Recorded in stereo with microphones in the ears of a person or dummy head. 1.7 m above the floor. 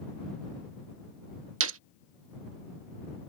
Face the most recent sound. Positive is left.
turn(degrees=-80)